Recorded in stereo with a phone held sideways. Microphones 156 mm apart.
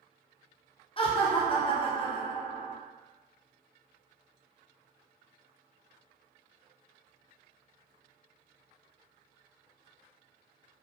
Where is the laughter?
35° left (ahead or behind), 0.6 m.